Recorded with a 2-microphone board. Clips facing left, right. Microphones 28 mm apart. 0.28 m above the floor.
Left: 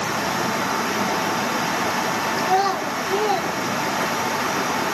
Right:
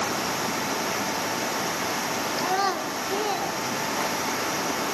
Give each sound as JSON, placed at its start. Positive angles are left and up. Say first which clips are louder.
{"t": 2.4, "sound": "a child speaking", "louder": "left 5 dB", "side_deg": 0, "distance_m": 2.0}